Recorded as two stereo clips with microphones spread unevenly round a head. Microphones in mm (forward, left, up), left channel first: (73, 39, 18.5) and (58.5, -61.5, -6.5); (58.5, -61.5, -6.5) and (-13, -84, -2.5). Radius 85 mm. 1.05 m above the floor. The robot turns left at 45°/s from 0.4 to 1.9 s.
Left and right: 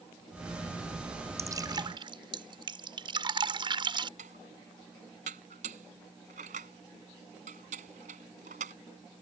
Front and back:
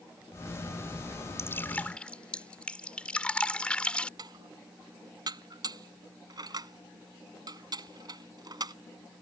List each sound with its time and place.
1.4 s dripping: 35° right; by 4.1 s 60° right
4.2 s dishes clattering: 135° right